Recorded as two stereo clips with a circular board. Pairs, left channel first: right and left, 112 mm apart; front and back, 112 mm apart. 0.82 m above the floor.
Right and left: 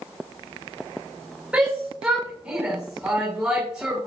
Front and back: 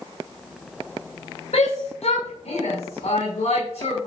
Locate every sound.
1.5 s a shout: 10° left, 5.5 m